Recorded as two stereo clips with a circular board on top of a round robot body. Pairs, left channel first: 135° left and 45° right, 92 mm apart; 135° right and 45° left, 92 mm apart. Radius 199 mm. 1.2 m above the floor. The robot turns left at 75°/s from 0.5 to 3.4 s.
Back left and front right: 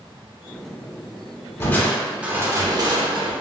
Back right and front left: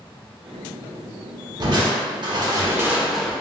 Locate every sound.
1.6 s crushing: 75° left, 0.8 m; by 3.3 s 55° right, 0.8 m